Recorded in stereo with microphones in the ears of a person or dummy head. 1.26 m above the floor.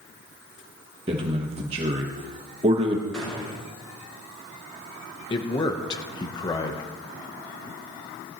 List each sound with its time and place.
1.1 s a man speaking: 30° right (ahead or behind), 1.1 m
3.1 s a gunshot: centre (ahead or behind), 6 m
5.3 s a man speaking: 25° left (ahead or behind), 0.8 m